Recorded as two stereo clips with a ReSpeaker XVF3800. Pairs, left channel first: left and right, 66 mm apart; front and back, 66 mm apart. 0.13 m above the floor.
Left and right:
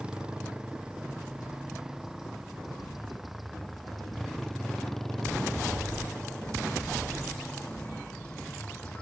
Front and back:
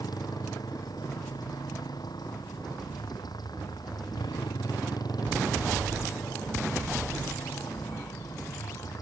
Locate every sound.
0.0 s a motorcycle: 15° right; by 9.0 s 15° left